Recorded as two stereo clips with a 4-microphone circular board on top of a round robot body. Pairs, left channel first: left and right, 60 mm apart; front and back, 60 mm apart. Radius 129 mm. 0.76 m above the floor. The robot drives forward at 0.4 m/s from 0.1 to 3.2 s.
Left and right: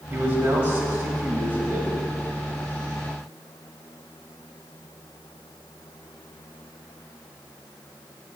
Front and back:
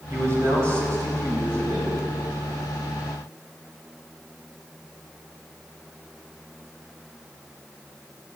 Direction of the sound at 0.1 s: 150° right.